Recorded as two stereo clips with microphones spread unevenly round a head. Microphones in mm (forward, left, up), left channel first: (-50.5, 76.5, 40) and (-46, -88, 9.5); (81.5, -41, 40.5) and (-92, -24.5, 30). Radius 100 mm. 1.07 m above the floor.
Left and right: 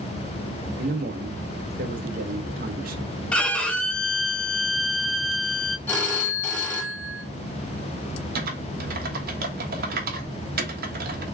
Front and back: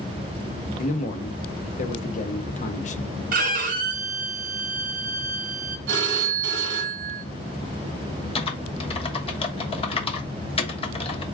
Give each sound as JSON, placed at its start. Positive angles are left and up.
{"t": 0.8, "sound": "a man speaking", "azimuth_deg": -50, "distance_m": 0.9}
{"t": 3.3, "sound": "a violin", "azimuth_deg": 160, "distance_m": 0.8}
{"t": 5.9, "sound": "a phone ringing", "azimuth_deg": 170, "distance_m": 1.9}
{"t": 8.3, "sound": "typing on a keyboard", "azimuth_deg": -65, "distance_m": 1.2}